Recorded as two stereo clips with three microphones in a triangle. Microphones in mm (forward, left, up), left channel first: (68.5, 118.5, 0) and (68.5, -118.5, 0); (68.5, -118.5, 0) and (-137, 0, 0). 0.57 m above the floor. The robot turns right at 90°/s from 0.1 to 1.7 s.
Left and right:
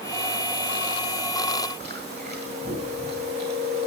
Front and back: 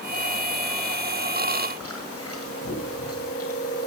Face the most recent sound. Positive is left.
turn(degrees=-45)